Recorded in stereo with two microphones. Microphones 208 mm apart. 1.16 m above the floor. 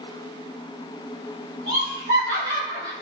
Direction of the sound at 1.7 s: 75° right (ahead or behind).